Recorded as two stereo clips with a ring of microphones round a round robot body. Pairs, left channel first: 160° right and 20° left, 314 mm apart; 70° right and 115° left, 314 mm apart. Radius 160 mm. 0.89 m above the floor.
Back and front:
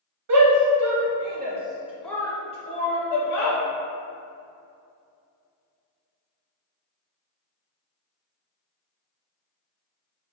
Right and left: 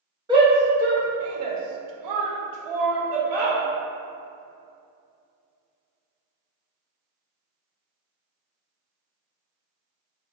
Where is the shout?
35° left, 0.9 m; by 3.6 s 150° left, 1.2 m.